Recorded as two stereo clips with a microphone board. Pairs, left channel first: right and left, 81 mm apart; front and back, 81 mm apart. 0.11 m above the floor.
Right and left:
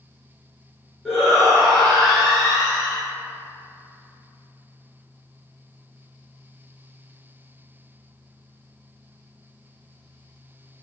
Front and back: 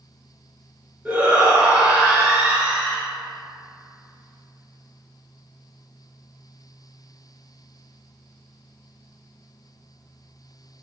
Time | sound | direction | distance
1.1 | a shout | 175° right | 1.6 m